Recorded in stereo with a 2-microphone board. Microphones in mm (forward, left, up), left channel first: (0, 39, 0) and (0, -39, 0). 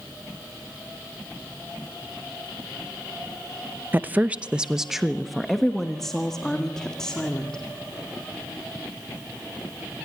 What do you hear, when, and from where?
3.9 s a woman speaking: 25° right (ahead or behind), 0.6 m; by 7.6 s 10° left (ahead or behind), 2.5 m